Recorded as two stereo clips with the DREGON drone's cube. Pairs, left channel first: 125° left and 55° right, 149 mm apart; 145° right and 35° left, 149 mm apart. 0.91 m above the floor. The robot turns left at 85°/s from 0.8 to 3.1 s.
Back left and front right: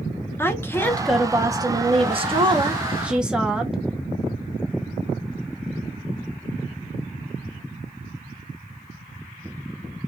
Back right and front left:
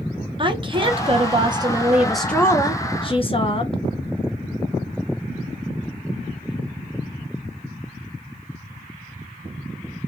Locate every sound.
0.4 s a woman speaking: 60° left, 0.8 m; by 3.8 s 135° right, 0.8 m